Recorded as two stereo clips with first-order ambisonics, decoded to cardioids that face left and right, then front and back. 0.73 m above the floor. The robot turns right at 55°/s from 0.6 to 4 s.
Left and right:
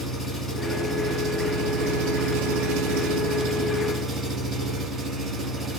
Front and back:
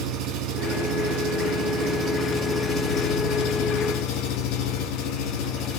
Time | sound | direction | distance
0.0 | an engine running | 165° left | 2 m